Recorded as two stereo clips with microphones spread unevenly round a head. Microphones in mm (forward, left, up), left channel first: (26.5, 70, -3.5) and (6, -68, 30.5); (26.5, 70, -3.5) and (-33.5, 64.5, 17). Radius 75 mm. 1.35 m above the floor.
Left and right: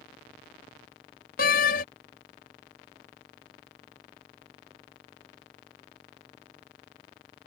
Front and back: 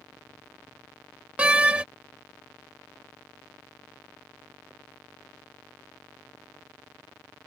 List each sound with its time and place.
1.4 s a door slam: 120° left